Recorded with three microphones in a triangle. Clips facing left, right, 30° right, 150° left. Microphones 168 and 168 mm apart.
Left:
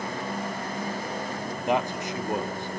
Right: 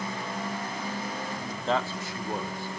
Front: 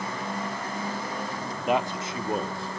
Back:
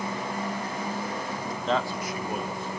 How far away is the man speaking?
About 0.9 m.